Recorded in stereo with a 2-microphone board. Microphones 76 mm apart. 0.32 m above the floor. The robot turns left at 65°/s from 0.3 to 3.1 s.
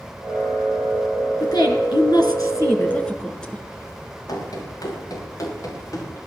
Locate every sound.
1.4 s a woman speaking: 120° left, 3.5 m; by 3.6 s 10° left, 3.5 m
4.3 s running footsteps: 55° left (ahead or behind), 7 m; by 6.2 s 45° left (ahead or behind), 7.5 m